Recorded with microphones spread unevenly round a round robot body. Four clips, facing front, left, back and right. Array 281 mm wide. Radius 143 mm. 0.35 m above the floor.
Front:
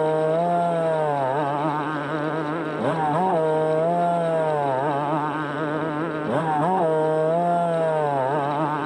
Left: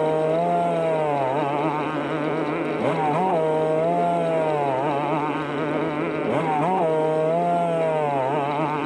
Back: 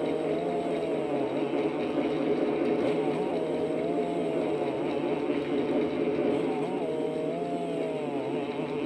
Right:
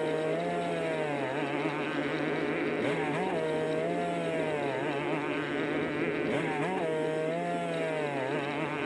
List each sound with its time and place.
0.0 s a motorcycle: 35° left